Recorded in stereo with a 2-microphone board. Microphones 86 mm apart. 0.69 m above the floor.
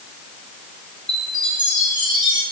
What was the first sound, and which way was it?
A chime, 65° right (ahead or behind).